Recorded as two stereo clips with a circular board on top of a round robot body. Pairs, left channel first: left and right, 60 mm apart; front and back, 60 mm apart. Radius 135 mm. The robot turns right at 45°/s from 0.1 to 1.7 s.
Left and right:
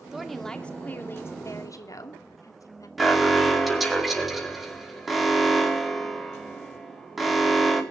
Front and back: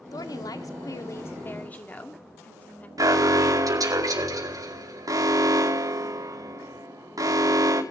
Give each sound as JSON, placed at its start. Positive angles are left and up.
{"t": 0.1, "sound": "a woman speaking", "azimuth_deg": -10, "distance_m": 2.5}
{"t": 3.0, "sound": "an alarm", "azimuth_deg": 180, "distance_m": 4.5}